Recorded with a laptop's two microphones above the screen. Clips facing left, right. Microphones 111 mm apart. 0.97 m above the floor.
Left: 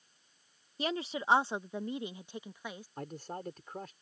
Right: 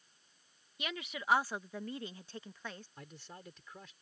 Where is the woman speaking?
35° left (ahead or behind); by 2.9 s 10° left (ahead or behind).